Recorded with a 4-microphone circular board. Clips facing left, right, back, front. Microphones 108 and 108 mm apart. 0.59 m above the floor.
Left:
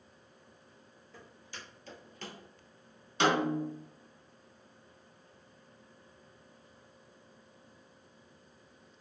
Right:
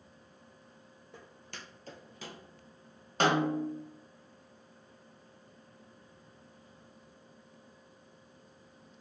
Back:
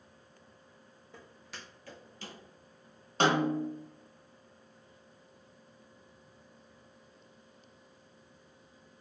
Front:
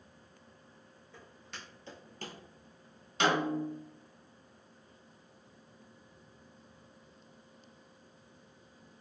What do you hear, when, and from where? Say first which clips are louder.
1.1 s footsteps: right 1 dB, back 1 dB; 110° right, 1.5 m; by 2.4 s 10° left, 1.0 m
3.2 s a snare drum: right 1 dB, back 2 dB; 135° right, 1.0 m